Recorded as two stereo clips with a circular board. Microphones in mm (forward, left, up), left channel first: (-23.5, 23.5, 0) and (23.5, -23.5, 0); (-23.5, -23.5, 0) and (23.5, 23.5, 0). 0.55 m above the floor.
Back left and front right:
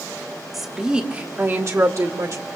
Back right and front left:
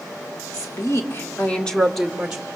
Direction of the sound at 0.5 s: 130° right.